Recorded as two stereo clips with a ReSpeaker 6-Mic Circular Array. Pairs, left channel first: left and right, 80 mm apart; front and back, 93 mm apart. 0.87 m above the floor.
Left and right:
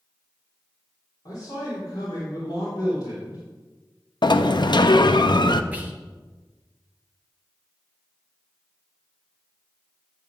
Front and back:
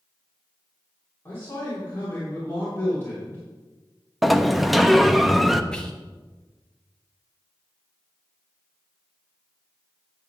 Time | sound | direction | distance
1.2 | a man speaking | 65° left | 3 m
4.2 | a sliding door | 90° left | 0.5 m
5.7 | whispering | 65° right | 0.7 m